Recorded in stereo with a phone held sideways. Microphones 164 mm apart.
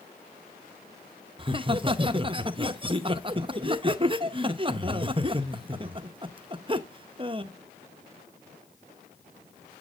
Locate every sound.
1.4 s laughter: 30° right (ahead or behind), 0.7 m